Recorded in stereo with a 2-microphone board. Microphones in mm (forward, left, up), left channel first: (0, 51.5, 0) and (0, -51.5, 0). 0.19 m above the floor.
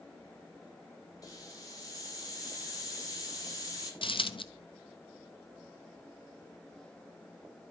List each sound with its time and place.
1.2 s a hiss: 35° left (ahead or behind), 5 m
4.0 s a dropped coin: 55° left (ahead or behind), 1.1 m